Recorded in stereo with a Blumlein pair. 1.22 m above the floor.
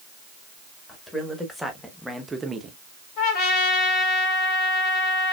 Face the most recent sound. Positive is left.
turn(degrees=40)